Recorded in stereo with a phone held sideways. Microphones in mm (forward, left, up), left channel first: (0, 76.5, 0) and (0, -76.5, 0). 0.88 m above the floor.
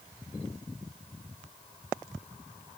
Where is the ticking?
No ticking in this recording.